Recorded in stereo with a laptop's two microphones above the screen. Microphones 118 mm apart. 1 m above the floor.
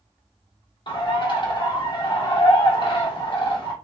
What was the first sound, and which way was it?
A bird, 45° left (ahead or behind).